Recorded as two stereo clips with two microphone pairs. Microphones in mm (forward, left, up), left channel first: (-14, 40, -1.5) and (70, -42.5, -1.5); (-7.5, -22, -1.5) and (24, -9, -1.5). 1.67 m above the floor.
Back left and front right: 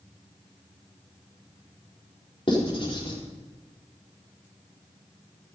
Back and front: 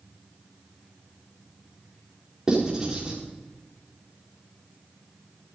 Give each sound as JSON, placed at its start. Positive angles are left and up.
{"t": 2.5, "sound": "writing", "azimuth_deg": 95, "distance_m": 4.5}